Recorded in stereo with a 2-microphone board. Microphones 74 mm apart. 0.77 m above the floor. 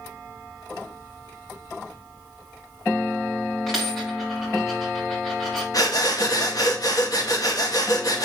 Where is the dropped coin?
Centre (ahead or behind), 5 m.